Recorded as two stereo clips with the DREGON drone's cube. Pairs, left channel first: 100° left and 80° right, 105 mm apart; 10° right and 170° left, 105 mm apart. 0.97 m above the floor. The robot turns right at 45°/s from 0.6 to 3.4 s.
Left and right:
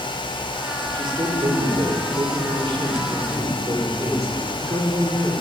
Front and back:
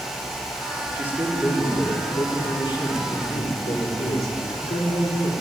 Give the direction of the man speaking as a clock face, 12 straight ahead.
4 o'clock.